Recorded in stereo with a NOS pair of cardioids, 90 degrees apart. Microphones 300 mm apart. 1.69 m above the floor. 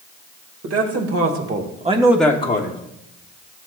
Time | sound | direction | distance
0.6 | a man speaking | 60° right | 2 m